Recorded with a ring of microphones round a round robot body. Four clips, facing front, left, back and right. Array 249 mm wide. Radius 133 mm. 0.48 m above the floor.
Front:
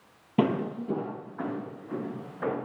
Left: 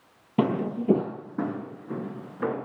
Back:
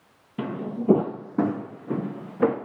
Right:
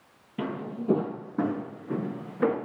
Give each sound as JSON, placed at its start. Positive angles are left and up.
{"t": 0.4, "sound": "footsteps", "azimuth_deg": 50, "distance_m": 0.6}